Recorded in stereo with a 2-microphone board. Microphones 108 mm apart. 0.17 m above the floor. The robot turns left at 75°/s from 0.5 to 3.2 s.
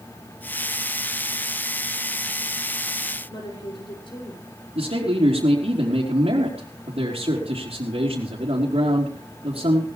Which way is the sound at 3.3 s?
50° left (ahead or behind).